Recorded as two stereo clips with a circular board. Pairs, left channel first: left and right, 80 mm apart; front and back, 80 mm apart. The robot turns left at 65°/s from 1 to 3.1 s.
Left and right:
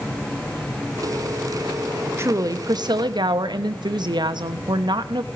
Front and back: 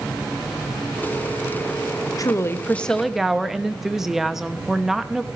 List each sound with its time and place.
2.2 s a woman speaking: 35° right, 1.0 m; by 5.3 s 95° right, 1.0 m